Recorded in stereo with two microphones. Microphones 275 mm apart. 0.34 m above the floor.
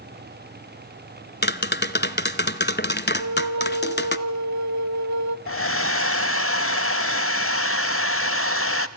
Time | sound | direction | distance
1.4 | tapping | 40° left (ahead or behind) | 0.8 m
3.2 | a flute | 85° right | 0.6 m
5.5 | a hair dryer | 50° left (ahead or behind) | 0.8 m